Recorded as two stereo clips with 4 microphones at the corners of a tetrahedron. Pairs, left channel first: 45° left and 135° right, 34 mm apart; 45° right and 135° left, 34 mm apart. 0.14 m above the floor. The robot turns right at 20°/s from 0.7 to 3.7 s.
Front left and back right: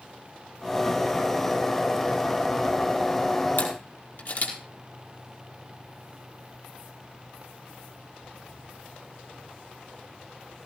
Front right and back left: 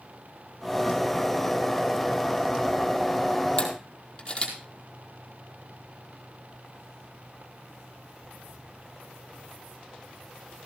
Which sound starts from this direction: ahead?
A camera shutter, at 3.6 s.